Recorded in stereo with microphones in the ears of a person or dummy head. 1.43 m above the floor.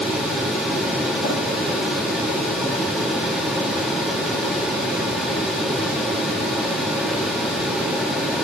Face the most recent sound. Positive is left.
turn(degrees=65)  # may be behind; listen again after turning